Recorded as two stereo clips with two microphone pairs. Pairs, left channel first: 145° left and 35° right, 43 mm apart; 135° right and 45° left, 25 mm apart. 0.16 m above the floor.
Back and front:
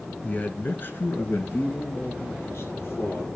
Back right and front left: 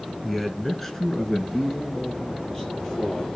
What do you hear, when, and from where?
0.2 s a man speaking: 150° left, 1.2 m; by 3.3 s 160° left, 3.5 m